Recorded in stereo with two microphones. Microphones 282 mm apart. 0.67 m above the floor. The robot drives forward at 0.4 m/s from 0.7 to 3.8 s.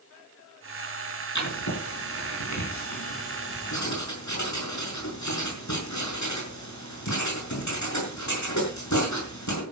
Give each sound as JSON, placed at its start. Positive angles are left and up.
{"t": 1.4, "sound": "writing", "side_deg": 85, "distance_m": 6.0}